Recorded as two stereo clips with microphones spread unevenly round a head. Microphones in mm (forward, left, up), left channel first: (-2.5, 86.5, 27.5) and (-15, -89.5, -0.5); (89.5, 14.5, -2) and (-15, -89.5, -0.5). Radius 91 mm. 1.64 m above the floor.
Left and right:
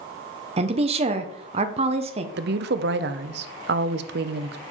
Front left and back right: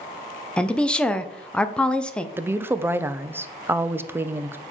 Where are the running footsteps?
I don't hear running footsteps.